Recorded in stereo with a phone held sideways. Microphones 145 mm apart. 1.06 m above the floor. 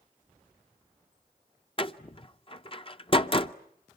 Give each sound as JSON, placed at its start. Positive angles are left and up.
{"t": 1.8, "sound": "a door slam", "side_deg": 40, "distance_m": 0.6}